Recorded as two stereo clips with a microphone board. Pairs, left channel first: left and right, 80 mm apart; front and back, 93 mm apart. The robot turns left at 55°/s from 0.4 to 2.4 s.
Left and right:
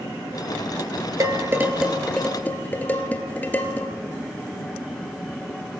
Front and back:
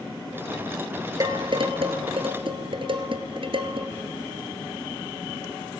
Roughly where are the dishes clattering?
Behind right.